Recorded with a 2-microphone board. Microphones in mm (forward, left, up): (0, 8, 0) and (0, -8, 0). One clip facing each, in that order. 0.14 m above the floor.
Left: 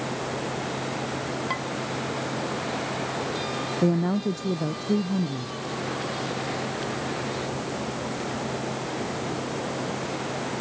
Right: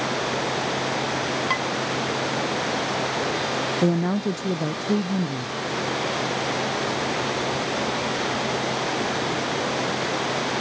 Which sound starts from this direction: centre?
A woman speaking, at 3.8 s.